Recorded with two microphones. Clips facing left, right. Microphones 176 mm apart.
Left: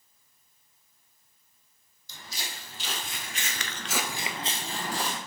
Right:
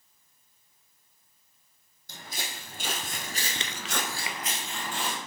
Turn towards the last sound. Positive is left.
turn(degrees=40)  # may be behind; listen again after turning